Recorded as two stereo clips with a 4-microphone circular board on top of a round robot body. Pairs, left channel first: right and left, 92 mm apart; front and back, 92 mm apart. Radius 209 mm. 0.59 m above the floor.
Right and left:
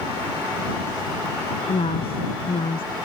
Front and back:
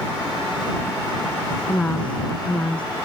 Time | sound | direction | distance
1.7 | a woman speaking | 75° right | ?